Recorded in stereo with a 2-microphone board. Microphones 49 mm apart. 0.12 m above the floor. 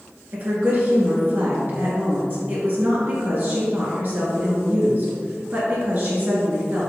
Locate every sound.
0.3 s a woman speaking: 40° right (ahead or behind), 1.7 m